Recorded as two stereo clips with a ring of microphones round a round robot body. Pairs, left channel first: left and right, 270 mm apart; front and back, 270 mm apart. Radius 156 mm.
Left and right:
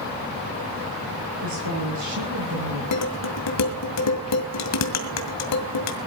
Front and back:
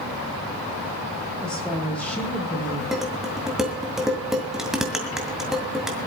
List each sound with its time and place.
1.4 s a woman speaking: 85° right, 8.5 m
2.9 s dishes clattering: 90° left, 2 m